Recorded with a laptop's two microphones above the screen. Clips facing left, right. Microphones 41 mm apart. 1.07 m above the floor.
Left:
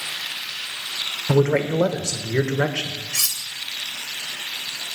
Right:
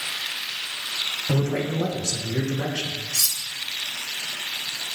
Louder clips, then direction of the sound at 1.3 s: Left 8 dB; 55° left (ahead or behind).